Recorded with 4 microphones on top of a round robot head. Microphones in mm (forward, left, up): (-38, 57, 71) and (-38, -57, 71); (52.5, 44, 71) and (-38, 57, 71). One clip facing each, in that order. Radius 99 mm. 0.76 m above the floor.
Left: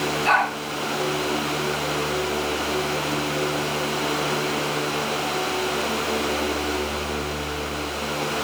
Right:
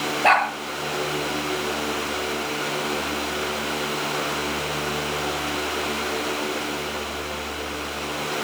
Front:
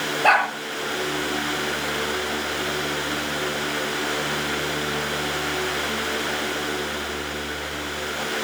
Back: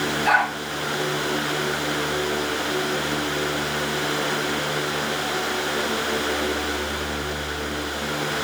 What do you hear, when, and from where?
0.2 s a dog barking: 50° right, 7.5 m